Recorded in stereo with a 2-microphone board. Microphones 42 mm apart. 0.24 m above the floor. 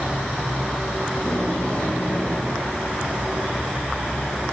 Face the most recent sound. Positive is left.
turn(degrees=40)  # may be behind; listen again after turning